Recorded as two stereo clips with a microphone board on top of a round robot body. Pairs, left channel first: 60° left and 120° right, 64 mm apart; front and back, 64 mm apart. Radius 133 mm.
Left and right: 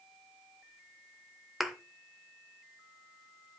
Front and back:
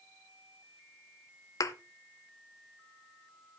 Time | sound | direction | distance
1.6 | a thud | 30° right | 0.8 m